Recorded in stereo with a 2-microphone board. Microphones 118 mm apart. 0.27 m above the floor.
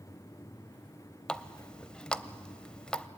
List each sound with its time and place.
1.3 s a running tap: 10° left (ahead or behind), 0.6 m